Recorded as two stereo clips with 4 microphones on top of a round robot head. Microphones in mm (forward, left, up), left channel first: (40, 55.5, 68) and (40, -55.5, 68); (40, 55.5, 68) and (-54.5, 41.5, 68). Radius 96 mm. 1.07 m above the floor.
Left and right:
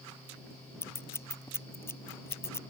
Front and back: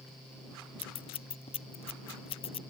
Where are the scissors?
25° left.